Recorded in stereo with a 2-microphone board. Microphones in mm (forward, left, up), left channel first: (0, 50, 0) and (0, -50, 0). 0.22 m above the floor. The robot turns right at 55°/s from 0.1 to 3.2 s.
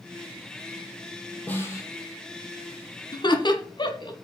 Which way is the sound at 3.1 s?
45° left (ahead or behind).